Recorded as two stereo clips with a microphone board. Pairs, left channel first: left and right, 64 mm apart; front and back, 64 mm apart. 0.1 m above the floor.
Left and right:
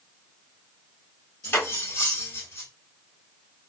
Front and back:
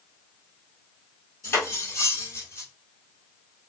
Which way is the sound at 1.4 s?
45° left.